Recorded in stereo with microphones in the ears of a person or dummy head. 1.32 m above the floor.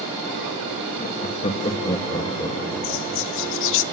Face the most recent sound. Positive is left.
turn(degrees=70)  # may be behind; listen again after turning